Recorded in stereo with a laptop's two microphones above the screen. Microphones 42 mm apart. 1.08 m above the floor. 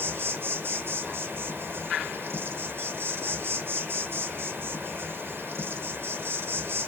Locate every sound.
0.0 s an insect: 60° right (ahead or behind), 1.0 m